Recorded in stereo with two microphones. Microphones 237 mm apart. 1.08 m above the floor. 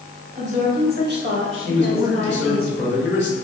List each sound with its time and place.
0.3 s a woman speaking: 25° right (ahead or behind), 1.1 m; by 2.7 s 65° right (ahead or behind), 1.5 m
1.7 s a man speaking: 50° left (ahead or behind), 1.3 m